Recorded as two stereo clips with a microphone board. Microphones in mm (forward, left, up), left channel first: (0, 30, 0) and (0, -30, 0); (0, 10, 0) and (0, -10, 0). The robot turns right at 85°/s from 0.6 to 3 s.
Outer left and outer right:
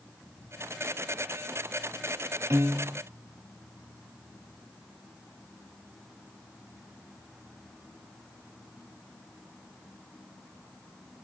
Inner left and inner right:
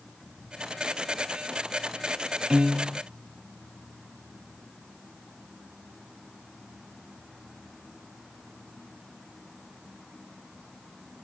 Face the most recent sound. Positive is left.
turn(degrees=-15)